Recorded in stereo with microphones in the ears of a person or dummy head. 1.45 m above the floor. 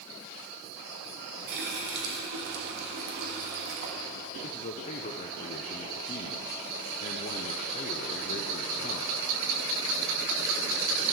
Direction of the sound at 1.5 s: 60° right (ahead or behind).